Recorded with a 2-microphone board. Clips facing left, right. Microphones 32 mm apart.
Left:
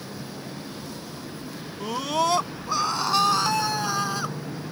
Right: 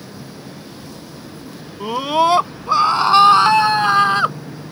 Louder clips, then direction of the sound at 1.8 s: Right 8 dB; 30° right (ahead or behind).